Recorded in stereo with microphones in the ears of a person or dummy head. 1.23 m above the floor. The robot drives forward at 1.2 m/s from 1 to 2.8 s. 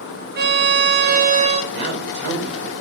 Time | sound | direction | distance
0.4 | a violin | 50° right (ahead or behind) | 1.1 m
1.7 | a man speaking | 50° right (ahead or behind) | 6.5 m